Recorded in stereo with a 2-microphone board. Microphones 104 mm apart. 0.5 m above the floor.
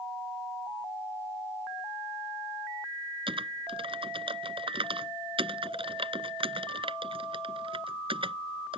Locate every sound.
3.3 s typing on a keyboard: 60° right (ahead or behind)